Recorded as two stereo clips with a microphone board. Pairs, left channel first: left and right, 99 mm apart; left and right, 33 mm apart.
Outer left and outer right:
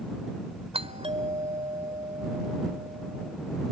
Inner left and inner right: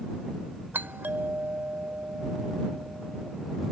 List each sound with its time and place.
0.7 s a doorbell: 80° right